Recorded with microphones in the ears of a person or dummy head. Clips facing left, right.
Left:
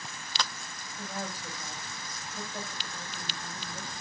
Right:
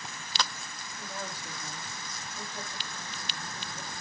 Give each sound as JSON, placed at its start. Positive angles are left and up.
{"t": 1.0, "sound": "a woman speaking", "side_deg": 45, "distance_m": 2.0}